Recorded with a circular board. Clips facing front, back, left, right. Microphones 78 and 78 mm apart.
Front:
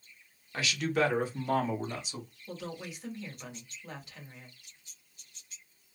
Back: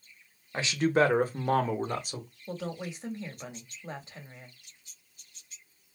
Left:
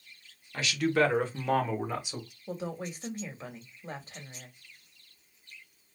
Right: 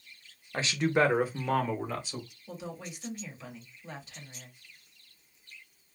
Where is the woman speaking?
130° left, 1.1 m.